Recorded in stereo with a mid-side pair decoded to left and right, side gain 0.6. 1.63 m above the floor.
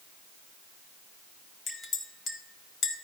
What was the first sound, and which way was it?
A clink, 40° left.